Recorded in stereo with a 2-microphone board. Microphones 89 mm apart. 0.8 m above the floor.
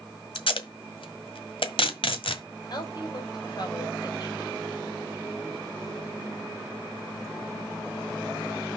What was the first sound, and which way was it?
Tape being pulled, 75° left (ahead or behind).